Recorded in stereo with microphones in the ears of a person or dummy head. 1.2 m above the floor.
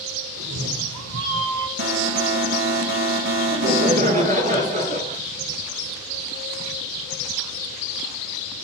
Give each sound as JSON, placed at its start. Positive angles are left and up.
{"t": 0.4, "sound": "a cat meowing", "side_deg": -80, "distance_m": 2.0}
{"t": 1.8, "sound": "an alarm", "side_deg": -60, "distance_m": 2.0}
{"t": 3.5, "sound": "laughter", "side_deg": -55, "distance_m": 5.0}